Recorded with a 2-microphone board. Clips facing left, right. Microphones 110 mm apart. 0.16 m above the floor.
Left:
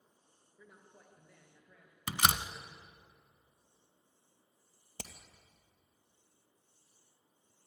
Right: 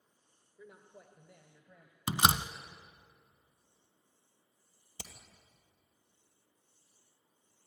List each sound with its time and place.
0.6 s a man speaking: 10° right (ahead or behind), 1.9 m; by 2.0 s 20° right (ahead or behind), 2.5 m
2.1 s a door slam: 20° right (ahead or behind), 1.1 m
5.0 s hammering: 50° left (ahead or behind), 2 m